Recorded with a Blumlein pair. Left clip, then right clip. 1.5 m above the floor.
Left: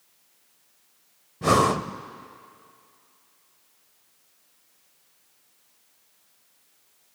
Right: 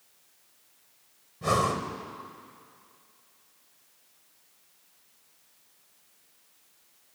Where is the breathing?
65° left, 0.6 m.